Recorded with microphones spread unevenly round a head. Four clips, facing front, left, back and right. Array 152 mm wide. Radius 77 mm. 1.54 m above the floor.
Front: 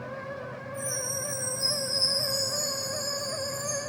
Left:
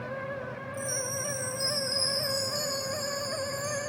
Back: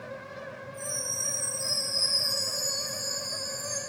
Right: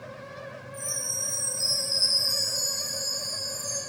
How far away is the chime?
About 6 m.